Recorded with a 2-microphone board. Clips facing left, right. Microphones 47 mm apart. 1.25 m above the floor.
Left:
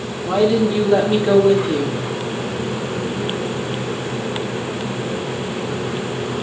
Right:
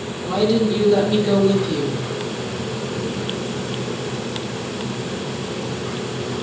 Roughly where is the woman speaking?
Left.